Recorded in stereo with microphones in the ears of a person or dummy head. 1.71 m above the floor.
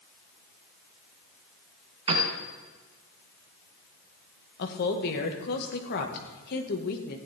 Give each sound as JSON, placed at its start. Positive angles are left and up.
{"t": 2.1, "sound": "a piano", "side_deg": -30, "distance_m": 3.0}
{"t": 4.6, "sound": "a woman speaking", "side_deg": 55, "distance_m": 1.8}